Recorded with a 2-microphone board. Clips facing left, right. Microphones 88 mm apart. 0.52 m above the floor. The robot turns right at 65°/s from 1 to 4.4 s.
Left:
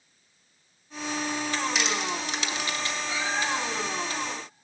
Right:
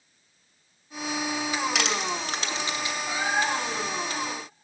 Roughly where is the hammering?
No hammering in this recording.